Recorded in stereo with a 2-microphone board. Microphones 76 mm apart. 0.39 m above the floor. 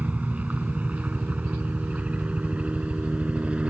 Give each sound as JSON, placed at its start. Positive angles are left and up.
{"t": 0.0, "sound": "a helicopter", "side_deg": -20}